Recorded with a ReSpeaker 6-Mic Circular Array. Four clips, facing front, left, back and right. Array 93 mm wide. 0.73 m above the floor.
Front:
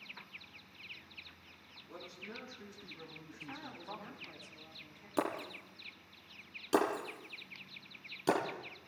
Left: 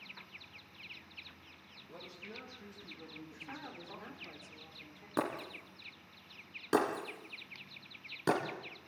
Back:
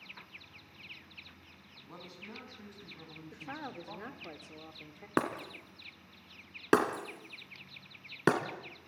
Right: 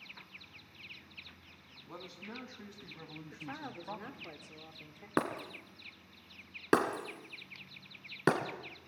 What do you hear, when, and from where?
1.9 s a man speaking: 120° right, 5 m; by 4.3 s 90° right, 3.5 m
3.3 s a woman speaking: 155° right, 2 m
5.2 s breaking glass: 145° right, 2.5 m